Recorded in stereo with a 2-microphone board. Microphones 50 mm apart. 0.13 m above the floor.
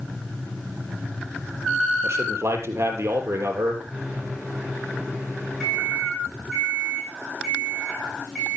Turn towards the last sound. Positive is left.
turn(degrees=10)  # may be behind; listen again after turning